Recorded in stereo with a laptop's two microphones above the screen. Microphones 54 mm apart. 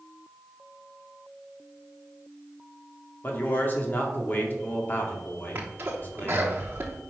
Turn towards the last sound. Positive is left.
turn(degrees=-45)  # may be behind; listen again after turning